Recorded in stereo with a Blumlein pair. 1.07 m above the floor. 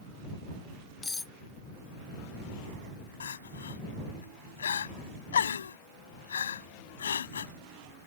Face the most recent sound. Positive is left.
turn(degrees=65)